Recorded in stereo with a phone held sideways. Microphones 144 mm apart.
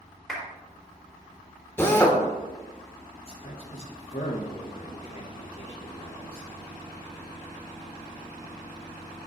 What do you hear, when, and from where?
0.3 s a clap: centre (ahead or behind), 3.5 m
1.8 s a drill: 15° left (ahead or behind), 1.5 m
3.2 s a man speaking: 45° left (ahead or behind), 3 m